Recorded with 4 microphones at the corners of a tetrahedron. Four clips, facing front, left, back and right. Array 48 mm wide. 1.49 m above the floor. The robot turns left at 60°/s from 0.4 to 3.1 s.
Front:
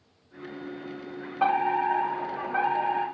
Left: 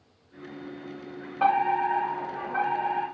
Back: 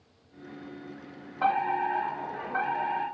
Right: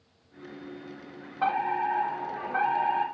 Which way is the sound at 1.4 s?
45° left.